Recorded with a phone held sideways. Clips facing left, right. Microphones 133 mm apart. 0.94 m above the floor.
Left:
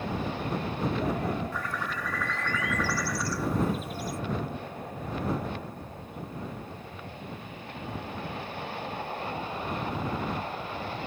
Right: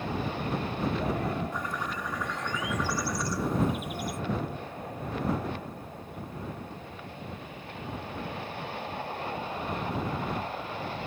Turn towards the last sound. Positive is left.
turn(degrees=-20)  # may be behind; listen again after turning